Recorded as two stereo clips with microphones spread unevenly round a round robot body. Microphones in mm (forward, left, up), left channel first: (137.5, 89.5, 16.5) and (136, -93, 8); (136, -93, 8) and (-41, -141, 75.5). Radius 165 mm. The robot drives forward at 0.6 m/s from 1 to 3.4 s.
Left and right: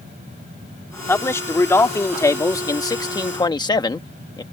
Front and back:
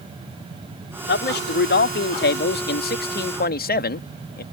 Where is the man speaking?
15° left; by 4.4 s 20° left.